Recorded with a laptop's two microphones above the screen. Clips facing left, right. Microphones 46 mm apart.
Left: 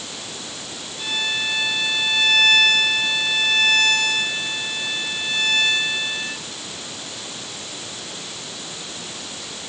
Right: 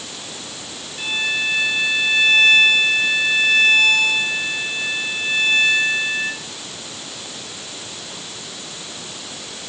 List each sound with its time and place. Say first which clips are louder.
1.0 s a violin: right 3 dB; 40° right (ahead or behind), 6 m